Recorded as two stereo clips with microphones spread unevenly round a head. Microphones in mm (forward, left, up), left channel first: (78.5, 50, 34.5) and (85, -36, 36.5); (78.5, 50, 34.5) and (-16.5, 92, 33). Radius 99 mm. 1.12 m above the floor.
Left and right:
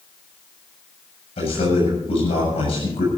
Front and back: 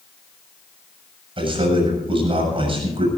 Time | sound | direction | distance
1.4 | a man speaking | 120° left | 7 m